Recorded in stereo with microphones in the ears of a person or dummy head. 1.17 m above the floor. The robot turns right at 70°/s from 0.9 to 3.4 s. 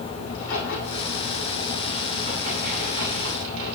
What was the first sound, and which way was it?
A crack, 110° left.